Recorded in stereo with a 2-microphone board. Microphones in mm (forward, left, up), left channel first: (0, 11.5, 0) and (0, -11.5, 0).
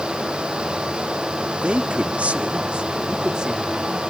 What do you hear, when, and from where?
1.6 s a man speaking: 55° right (ahead or behind), 1.9 m; by 4.0 s 30° right (ahead or behind), 3.5 m